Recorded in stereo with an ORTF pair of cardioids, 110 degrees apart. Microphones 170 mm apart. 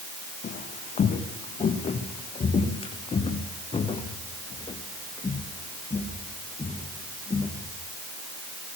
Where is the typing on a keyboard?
I don't hear typing on a keyboard.